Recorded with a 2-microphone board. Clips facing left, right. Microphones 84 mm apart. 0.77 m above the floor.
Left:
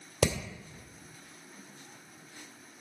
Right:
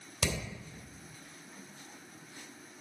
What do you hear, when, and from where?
0.2 s hammering: 65° left (ahead or behind), 2.5 m